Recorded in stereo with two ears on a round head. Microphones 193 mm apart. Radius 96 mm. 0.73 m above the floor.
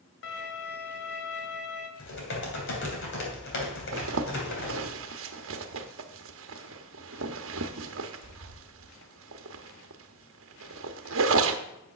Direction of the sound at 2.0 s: 60° left (ahead or behind).